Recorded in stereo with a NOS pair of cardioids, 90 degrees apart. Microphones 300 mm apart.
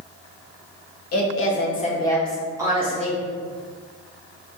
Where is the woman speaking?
55° left, 1.4 m; by 3.2 s 30° right, 1.8 m.